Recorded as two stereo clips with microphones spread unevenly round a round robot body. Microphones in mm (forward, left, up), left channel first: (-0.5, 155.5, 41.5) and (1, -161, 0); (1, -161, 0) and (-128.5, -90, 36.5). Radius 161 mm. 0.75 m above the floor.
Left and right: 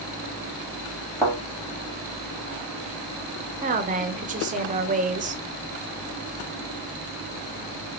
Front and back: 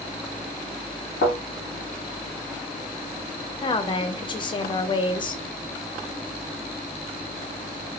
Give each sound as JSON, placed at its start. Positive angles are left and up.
{"t": 1.2, "sound": "a thud", "azimuth_deg": 10, "distance_m": 1.2}
{"t": 3.6, "sound": "a woman speaking", "azimuth_deg": -45, "distance_m": 0.6}